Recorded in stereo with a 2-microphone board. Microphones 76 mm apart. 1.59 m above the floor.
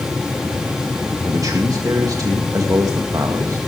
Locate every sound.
1.2 s a man speaking: 50° right (ahead or behind), 2.0 m